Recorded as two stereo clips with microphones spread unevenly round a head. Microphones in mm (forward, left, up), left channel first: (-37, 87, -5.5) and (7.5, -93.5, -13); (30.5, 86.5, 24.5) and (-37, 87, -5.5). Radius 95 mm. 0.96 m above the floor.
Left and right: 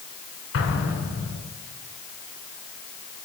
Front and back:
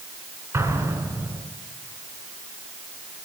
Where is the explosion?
125° left, 5 m.